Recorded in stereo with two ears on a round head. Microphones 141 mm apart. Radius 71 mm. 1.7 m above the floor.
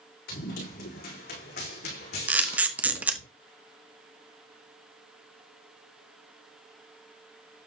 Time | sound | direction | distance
0.3 | running footsteps | 70° left (ahead or behind) | 6.5 m
2.3 | a camera shutter | 10° right (ahead or behind) | 0.8 m